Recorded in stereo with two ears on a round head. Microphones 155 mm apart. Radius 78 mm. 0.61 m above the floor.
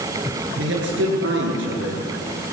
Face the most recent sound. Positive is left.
turn(degrees=-75)  # may be behind; listen again after turning